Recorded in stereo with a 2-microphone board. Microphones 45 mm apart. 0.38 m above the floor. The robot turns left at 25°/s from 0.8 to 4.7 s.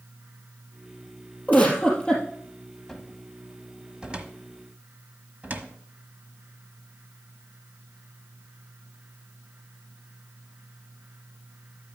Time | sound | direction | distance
1.5 | a giggle | 35° left (ahead or behind) | 3 m
2.9 | a cupboard door | 5° left (ahead or behind) | 1.2 m